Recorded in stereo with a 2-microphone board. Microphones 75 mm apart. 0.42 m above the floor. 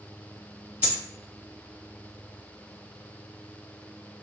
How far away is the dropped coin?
About 1.1 m.